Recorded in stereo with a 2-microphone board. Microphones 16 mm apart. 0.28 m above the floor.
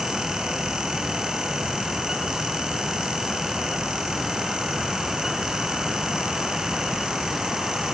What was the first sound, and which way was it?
Only background noise.